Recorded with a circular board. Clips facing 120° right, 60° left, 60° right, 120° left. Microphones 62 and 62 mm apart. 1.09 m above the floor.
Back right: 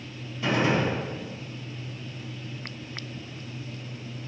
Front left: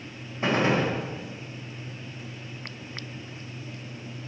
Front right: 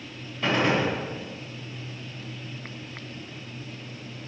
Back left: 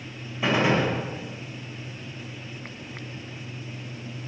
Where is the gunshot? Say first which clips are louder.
Front left 1 dB, back left 1 dB; 50° left, 0.9 m.